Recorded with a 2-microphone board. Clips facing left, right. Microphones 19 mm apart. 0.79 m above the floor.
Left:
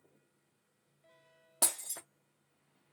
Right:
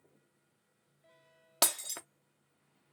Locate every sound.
1.6 s breaking glass: 55° right (ahead or behind), 0.9 m